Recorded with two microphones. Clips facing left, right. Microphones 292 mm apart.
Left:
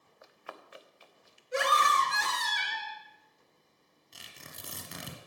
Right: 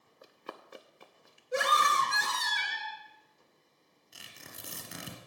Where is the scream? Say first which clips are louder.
Left 1 dB; 50° right (ahead or behind), 2.5 m.